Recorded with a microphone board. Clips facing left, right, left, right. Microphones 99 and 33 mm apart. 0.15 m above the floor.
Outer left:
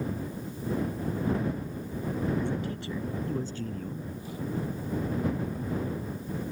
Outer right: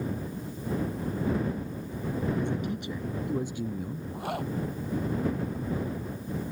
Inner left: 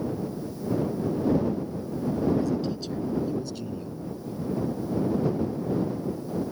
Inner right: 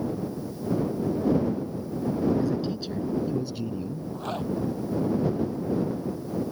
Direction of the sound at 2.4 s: 20° right (ahead or behind).